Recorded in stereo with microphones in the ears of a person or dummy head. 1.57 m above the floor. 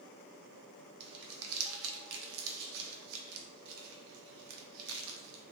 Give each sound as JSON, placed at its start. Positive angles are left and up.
{"t": 1.0, "sound": "crumpling", "side_deg": -80, "distance_m": 0.5}